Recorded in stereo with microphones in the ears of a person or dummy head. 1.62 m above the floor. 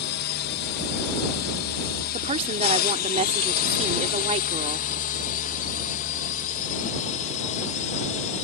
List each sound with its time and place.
0.0 s a drone: 55° left (ahead or behind); by 8.4 s 40° left (ahead or behind)
2.1 s a woman speaking: 30° right (ahead or behind)